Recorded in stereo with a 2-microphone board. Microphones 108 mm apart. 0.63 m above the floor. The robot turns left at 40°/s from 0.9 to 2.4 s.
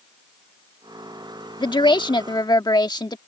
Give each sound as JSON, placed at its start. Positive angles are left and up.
{"t": 1.6, "sound": "a woman speaking", "azimuth_deg": 100}